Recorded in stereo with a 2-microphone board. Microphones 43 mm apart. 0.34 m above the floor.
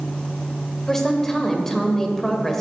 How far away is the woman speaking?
About 1.1 m.